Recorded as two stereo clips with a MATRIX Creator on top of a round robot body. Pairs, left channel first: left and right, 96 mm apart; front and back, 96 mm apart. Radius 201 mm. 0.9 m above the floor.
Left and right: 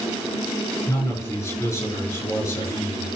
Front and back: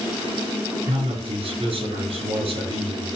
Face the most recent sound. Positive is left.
turn(degrees=150)